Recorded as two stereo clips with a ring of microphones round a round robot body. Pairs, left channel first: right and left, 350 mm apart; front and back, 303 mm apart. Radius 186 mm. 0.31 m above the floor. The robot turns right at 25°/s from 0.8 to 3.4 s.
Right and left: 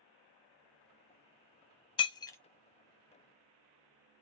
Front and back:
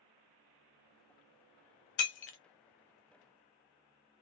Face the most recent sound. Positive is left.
turn(degrees=15)